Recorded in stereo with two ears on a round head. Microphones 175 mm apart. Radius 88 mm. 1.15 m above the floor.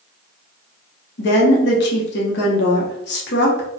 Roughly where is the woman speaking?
Left.